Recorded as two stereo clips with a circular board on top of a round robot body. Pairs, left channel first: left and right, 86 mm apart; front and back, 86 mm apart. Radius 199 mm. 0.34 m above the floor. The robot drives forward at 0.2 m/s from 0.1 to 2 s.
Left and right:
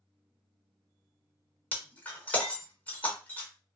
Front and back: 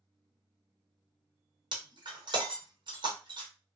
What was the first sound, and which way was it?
Breaking glass, 160° left.